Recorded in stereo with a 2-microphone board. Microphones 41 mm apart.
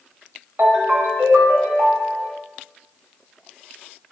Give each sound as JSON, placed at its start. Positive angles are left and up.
{"t": 0.6, "sound": "a ringtone", "side_deg": -55, "distance_m": 1.4}